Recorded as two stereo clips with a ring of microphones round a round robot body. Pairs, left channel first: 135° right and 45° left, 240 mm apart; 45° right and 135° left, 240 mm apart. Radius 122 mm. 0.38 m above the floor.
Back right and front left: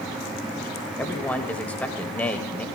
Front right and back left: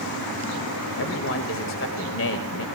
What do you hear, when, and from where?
1.0 s a man speaking: 50° right, 1.6 m